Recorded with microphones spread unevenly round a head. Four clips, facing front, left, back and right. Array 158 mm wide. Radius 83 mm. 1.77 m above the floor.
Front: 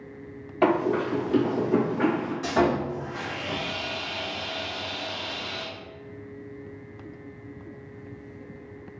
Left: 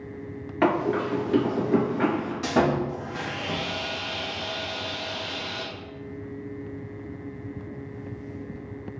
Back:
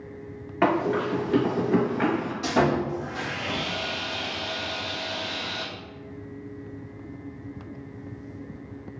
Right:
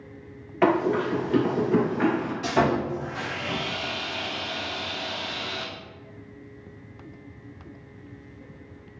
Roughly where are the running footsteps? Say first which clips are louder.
Right 2 dB, front 1 dB; left.